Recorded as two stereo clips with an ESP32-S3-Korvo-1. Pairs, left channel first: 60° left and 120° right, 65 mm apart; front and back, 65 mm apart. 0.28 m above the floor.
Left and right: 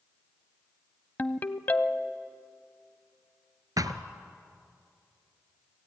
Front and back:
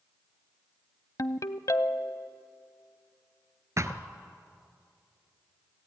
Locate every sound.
1.2 s a ringtone: 5° left, 0.7 m
3.8 s a thud: 140° right, 1.1 m